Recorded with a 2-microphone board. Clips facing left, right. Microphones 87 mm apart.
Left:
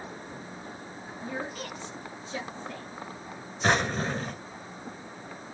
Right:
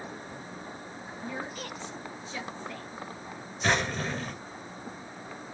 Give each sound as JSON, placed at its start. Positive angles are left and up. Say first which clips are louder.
{"t": 1.2, "sound": "a woman speaking", "louder": "left 2 dB", "side_deg": 65, "distance_m": 3.0}
{"t": 3.6, "sound": "a drawer", "louder": "left 2 dB", "side_deg": 35, "distance_m": 0.9}